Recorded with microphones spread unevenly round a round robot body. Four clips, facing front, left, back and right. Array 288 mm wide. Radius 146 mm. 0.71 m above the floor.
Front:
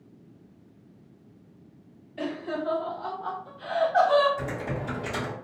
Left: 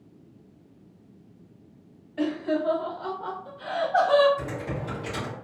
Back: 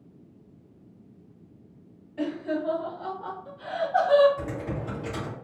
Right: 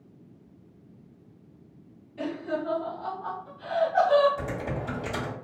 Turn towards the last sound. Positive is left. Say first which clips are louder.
# even, front 1 dB
turn(degrees=-110)